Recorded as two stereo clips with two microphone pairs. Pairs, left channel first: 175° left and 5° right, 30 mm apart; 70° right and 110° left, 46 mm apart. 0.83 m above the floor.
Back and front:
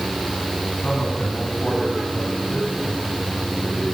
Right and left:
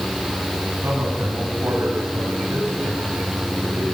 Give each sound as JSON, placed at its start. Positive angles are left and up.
{"t": 0.8, "sound": "a man speaking", "azimuth_deg": 125, "distance_m": 6.0}